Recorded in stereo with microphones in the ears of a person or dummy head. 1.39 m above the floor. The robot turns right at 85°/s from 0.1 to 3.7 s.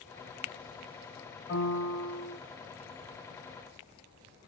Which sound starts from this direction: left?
A piano, at 1.5 s.